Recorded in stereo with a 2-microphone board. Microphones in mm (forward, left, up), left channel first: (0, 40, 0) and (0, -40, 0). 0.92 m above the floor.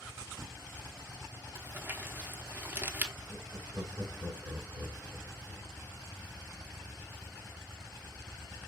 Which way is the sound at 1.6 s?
25° right (ahead or behind).